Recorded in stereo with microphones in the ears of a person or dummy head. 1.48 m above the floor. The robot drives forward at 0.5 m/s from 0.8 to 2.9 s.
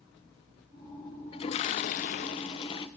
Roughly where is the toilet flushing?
Left.